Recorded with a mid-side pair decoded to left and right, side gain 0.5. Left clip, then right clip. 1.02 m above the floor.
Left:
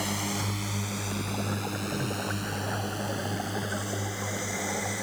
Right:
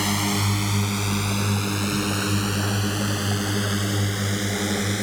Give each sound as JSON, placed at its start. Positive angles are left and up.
{"t": 0.0, "sound": "a drone", "azimuth_deg": -50}